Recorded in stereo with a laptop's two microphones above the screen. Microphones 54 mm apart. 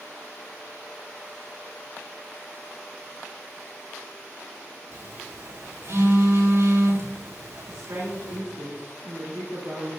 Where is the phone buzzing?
75° right (ahead or behind), 3 m.